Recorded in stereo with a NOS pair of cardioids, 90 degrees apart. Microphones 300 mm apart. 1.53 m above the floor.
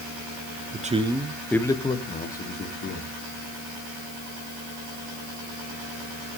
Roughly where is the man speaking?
Ahead right.